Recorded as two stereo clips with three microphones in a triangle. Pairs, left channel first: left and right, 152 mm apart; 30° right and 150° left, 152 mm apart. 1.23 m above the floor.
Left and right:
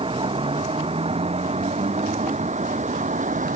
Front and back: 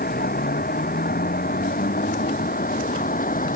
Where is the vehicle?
35° right; by 3.6 s 55° right.